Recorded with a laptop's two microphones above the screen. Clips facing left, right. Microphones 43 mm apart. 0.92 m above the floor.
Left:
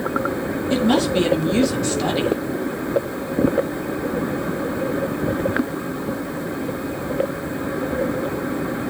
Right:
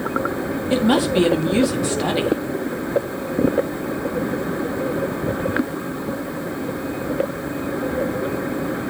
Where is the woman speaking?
15° right (ahead or behind), 1.5 m.